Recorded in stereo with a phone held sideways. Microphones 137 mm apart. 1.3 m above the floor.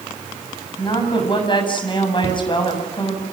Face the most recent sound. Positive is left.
turn(degrees=60)  # may be behind; listen again after turning